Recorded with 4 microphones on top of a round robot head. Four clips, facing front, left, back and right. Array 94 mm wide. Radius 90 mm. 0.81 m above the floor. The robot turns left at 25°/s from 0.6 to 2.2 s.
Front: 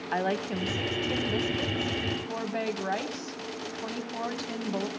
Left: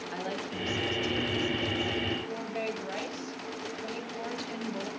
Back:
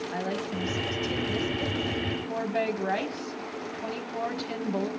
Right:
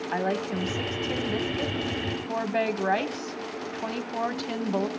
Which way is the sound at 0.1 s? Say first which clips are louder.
Right 9 dB, front 5 dB; 40° right.